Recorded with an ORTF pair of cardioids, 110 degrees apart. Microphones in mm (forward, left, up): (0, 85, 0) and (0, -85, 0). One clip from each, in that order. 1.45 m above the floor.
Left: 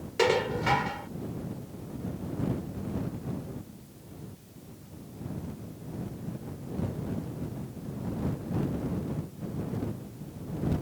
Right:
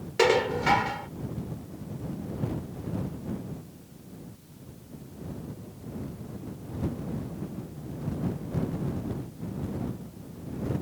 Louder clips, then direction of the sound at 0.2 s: Right 3 dB; 20° right.